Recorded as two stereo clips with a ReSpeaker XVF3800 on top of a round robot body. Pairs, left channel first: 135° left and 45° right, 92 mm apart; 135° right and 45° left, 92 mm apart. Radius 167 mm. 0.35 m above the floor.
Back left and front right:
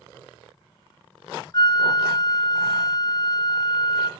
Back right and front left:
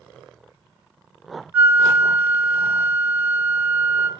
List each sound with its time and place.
1.5 s a flute: 110° left, 0.6 m